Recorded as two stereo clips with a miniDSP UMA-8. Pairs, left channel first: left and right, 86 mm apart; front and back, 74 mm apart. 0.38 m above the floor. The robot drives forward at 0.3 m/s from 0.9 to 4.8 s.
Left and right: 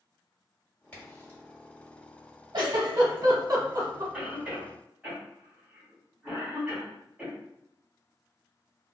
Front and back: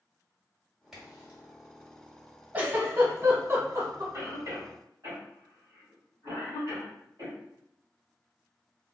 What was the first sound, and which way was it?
A crack, 105° left.